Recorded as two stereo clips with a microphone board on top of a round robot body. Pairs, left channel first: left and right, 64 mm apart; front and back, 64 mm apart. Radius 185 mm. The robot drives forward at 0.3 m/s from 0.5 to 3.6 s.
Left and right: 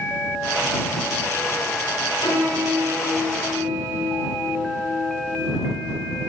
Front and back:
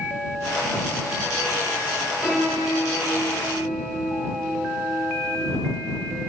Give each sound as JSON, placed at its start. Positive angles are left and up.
{"t": 2.2, "sound": "a piano", "azimuth_deg": 105, "distance_m": 1.6}